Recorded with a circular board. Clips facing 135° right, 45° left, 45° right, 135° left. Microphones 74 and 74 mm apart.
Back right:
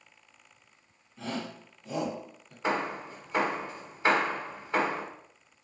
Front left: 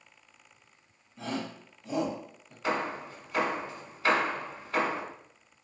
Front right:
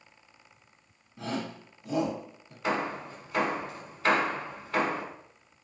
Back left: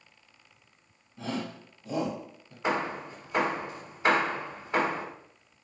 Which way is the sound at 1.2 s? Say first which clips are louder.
Front left 1 dB, even; 35° right.